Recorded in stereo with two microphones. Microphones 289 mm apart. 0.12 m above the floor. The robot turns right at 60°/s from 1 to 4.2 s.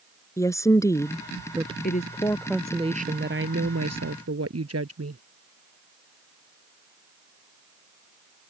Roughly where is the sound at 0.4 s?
Behind.